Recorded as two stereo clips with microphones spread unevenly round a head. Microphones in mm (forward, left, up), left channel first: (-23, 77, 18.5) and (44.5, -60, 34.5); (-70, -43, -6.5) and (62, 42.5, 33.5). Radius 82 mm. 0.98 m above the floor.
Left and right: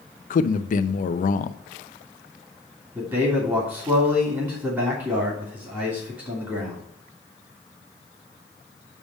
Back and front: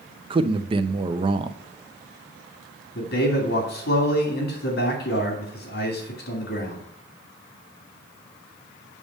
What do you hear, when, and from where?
0.3 s a man speaking: 95° left, 0.6 m
3.0 s a man speaking: 135° right, 2.5 m